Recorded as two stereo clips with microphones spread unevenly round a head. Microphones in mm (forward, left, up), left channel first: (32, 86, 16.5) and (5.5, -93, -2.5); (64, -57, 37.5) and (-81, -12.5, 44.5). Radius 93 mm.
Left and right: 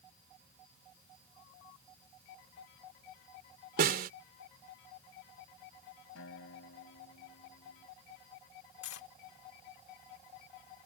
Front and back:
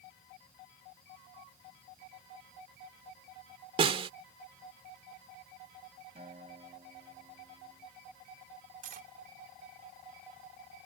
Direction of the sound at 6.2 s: 105° left.